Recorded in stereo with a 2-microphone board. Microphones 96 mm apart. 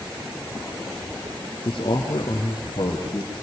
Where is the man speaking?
55° left (ahead or behind), 3 m; by 3.4 s 50° left (ahead or behind), 4.5 m.